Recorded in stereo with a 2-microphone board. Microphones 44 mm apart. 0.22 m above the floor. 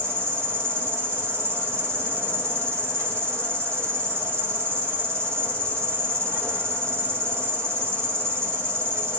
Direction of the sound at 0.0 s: 75° right (ahead or behind).